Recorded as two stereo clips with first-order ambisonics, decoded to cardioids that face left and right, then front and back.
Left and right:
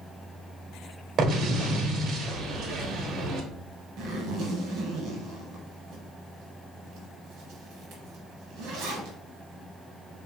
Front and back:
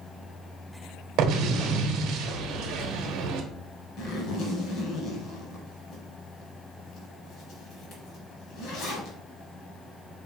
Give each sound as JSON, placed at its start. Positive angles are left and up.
{"t": 1.2, "sound": "an explosion", "azimuth_deg": -145, "distance_m": 0.9}
{"t": 4.0, "sound": "a zipper", "azimuth_deg": -40, "distance_m": 1.4}